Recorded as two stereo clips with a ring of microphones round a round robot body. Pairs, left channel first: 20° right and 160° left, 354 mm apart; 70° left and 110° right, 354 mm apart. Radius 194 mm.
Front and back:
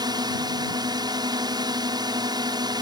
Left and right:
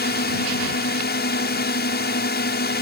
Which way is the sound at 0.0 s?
90° left.